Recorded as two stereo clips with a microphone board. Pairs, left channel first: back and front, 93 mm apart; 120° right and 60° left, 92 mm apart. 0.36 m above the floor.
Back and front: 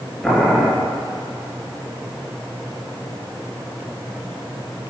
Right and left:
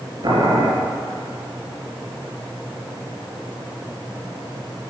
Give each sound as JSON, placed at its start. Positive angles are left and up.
{"t": 0.2, "sound": "boiling", "azimuth_deg": 95, "distance_m": 2.5}